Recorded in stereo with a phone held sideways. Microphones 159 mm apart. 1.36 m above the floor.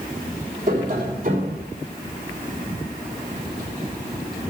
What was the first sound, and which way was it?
Tapping, 50° right (ahead or behind).